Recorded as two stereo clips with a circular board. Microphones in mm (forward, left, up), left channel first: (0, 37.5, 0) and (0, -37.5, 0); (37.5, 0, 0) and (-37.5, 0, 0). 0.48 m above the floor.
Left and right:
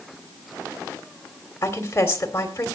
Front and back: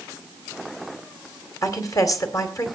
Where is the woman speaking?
35° left, 2.5 m.